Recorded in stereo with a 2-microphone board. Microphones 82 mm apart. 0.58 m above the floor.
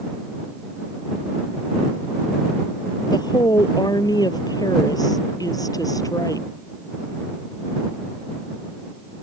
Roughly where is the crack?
I don't hear a crack.